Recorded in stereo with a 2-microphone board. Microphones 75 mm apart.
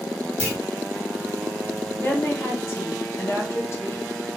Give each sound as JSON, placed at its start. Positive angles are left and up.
{"t": 0.4, "sound": "a clunk", "side_deg": -20, "distance_m": 1.5}
{"t": 2.0, "sound": "a woman speaking", "side_deg": 40, "distance_m": 1.1}